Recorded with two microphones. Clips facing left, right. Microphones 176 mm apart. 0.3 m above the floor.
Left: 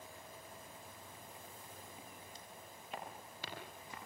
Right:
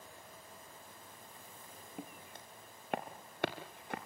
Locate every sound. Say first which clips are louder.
2.0 s footsteps: right 5 dB; 60° right (ahead or behind), 2 m; by 4.0 s 65° right (ahead or behind), 3 m